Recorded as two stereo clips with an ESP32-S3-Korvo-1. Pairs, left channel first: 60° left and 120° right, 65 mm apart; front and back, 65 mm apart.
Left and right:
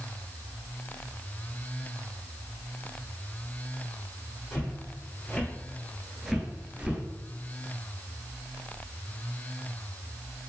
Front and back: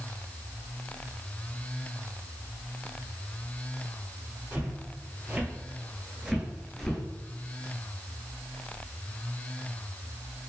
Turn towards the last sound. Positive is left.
turn(degrees=-70)